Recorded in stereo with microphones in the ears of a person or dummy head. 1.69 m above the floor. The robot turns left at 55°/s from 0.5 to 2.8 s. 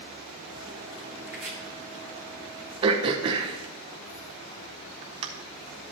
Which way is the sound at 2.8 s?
25° right (ahead or behind).